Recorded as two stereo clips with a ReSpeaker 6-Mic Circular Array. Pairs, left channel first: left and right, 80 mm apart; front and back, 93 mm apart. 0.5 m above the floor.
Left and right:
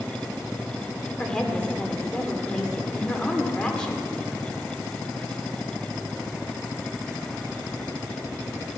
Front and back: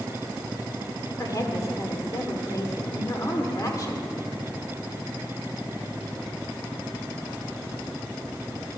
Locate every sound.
1.2 s a woman speaking: 15° left, 1.6 m